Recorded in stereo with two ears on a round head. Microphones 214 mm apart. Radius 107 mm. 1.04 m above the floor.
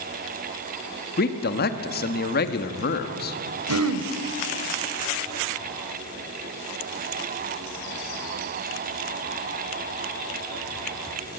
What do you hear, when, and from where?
1.2 s a man speaking: 40° left (ahead or behind), 1.7 m
3.7 s throat clearing: 70° right (ahead or behind), 1.8 m